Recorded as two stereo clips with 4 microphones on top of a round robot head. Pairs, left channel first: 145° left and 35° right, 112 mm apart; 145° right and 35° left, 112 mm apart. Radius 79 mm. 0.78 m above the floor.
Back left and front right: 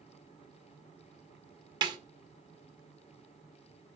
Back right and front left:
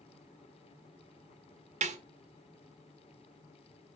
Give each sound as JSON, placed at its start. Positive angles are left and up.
{"t": 1.8, "sound": "a snare drum", "azimuth_deg": 20, "distance_m": 1.2}